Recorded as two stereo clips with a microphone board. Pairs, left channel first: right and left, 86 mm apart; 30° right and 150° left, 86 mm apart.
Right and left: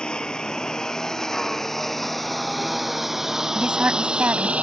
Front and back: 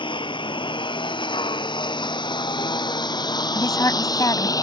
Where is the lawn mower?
10° right; by 4.6 s 15° left.